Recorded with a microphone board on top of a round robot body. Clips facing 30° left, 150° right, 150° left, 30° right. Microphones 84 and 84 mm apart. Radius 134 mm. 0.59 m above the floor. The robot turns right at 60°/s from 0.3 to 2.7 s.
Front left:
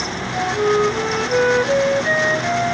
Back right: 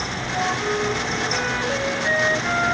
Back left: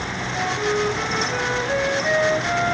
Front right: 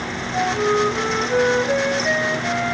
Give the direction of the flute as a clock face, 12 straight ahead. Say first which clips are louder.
Front left 6 dB, front right 4 dB; 12 o'clock.